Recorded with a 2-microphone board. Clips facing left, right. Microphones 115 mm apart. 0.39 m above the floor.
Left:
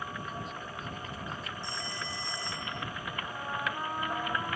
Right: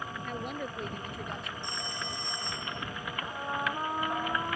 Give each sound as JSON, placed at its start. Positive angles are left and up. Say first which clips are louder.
{"t": 0.2, "sound": "a woman speaking", "louder": "right 4 dB", "side_deg": -60}
{"t": 1.6, "sound": "a phone ringing", "louder": "right 1 dB", "side_deg": -20}
{"t": 3.2, "sound": "a trumpet", "louder": "right 3 dB", "side_deg": -15}